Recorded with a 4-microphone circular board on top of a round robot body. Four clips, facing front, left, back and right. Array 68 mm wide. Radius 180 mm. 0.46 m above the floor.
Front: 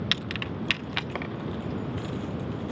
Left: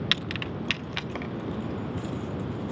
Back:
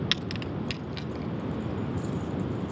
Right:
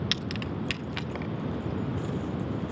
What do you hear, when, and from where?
0.1 s keys jangling: 75° left, 0.6 m; by 2.7 s 5° left, 2.5 m